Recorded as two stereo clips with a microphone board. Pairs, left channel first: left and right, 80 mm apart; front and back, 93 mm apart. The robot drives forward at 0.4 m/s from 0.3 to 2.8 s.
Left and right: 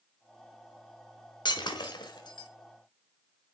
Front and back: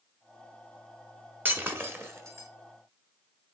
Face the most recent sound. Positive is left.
turn(degrees=125)